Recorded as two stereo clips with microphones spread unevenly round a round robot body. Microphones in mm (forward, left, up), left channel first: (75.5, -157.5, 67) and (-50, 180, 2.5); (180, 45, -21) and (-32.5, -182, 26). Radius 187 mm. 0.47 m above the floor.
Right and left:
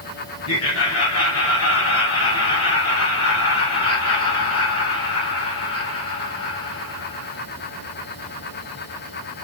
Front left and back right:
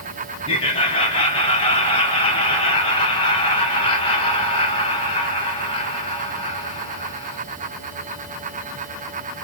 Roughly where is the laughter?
Ahead.